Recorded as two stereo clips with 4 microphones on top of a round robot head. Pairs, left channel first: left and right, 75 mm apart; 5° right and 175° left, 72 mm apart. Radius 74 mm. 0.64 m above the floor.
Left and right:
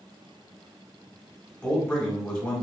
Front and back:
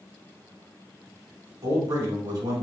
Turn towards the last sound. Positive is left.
turn(degrees=170)